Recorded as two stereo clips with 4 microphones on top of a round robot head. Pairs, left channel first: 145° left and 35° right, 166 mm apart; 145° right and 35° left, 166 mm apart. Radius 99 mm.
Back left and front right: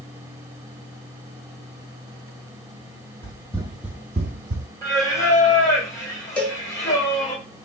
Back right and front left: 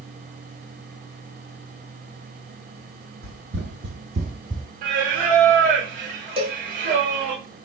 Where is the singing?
70° left, 1.7 m.